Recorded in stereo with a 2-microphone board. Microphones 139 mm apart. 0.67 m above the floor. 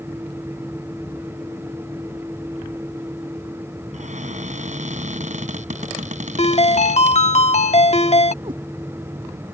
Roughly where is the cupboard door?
Right.